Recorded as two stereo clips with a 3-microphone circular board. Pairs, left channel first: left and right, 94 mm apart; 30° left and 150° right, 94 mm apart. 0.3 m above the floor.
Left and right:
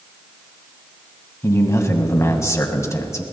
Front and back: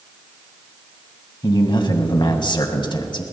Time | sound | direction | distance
1.4 | a man speaking | 40° left | 1.8 m